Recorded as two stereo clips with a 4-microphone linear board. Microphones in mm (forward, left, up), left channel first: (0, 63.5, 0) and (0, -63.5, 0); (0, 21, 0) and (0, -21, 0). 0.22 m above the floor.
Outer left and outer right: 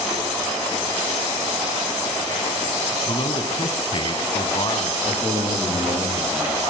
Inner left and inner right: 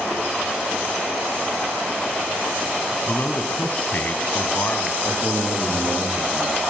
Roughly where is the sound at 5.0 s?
Centre.